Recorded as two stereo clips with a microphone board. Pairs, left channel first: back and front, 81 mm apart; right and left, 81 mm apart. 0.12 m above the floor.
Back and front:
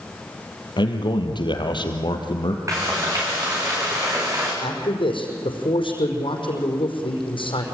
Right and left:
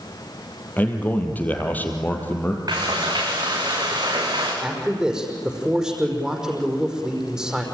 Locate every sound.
0.8 s a man speaking: 160° right, 3.5 m
2.7 s frying: 50° left, 9 m
4.6 s a man speaking: 170° left, 5 m